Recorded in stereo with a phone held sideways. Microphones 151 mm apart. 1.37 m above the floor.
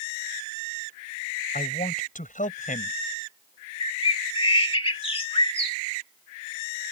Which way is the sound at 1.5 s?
60° left (ahead or behind).